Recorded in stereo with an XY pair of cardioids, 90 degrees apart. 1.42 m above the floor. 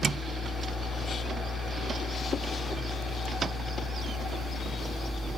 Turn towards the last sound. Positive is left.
turn(degrees=60)